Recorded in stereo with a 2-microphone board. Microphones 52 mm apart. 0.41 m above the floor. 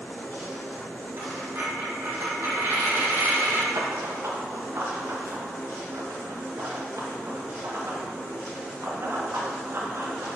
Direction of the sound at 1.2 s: 55° right (ahead or behind).